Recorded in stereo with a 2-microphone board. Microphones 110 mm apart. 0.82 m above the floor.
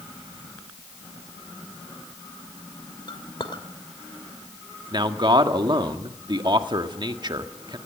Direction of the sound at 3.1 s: 50° left (ahead or behind).